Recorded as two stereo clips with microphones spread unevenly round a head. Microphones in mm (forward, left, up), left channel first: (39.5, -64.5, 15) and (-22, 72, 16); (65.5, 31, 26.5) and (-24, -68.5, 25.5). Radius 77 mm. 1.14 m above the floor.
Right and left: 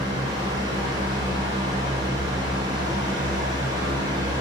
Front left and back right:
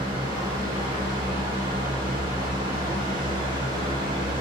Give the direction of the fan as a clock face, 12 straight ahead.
6 o'clock.